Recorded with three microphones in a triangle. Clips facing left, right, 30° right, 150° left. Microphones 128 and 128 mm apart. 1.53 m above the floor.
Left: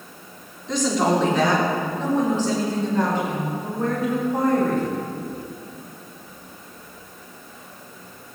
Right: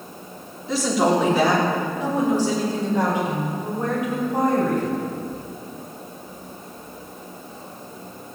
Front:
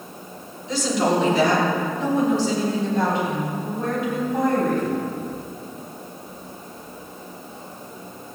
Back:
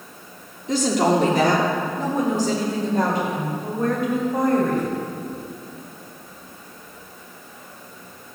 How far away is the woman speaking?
About 3.5 m.